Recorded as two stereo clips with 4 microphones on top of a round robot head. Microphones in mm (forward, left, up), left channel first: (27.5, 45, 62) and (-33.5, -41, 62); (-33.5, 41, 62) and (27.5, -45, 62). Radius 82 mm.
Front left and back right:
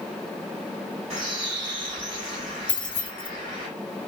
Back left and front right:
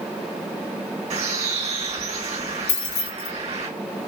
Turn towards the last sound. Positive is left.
turn(degrees=130)